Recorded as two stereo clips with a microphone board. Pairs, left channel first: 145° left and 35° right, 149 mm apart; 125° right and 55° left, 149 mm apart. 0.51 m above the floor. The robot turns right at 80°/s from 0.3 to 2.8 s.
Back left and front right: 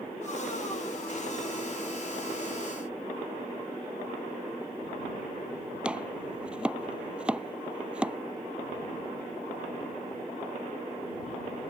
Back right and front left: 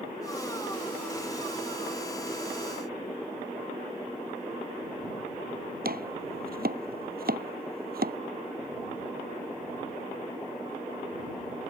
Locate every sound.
5.8 s chopping: 50° left